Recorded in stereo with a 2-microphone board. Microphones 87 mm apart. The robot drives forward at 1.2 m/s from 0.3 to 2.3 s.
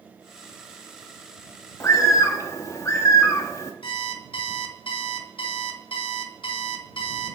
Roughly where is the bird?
Left.